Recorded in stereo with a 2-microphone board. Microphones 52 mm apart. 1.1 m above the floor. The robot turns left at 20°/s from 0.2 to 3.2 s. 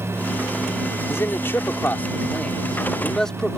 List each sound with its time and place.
1.1 s a man speaking: 55° left; by 3.6 s 10° left